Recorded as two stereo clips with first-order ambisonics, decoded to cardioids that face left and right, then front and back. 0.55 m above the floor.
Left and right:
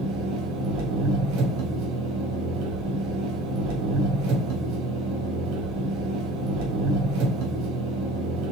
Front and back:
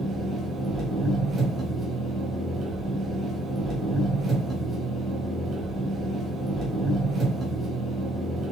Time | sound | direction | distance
0.0 | an engine running | 110° right | 2 m